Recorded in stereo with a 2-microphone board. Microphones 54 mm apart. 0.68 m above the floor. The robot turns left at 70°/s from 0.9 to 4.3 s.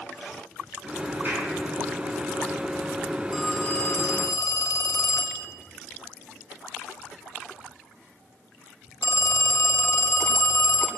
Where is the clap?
40° right (ahead or behind), 6.5 m; by 1.5 s 20° right (ahead or behind), 6.5 m.